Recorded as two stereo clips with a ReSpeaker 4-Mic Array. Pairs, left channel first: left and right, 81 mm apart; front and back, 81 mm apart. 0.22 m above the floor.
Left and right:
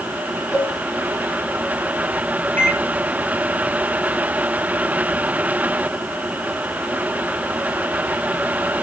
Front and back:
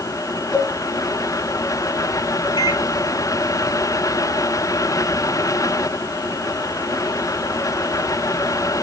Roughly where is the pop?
No pop in this recording.